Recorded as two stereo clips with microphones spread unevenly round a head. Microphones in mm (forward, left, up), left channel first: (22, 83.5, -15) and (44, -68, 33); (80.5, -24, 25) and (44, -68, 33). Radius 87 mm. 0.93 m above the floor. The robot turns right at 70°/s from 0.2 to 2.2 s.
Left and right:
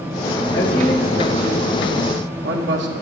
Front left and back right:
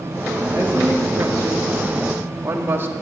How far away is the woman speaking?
About 2.0 m.